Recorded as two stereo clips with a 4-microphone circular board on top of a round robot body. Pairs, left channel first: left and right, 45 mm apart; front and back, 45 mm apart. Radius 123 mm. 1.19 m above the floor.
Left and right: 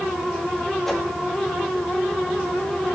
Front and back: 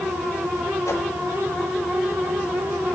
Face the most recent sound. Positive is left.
turn(degrees=5)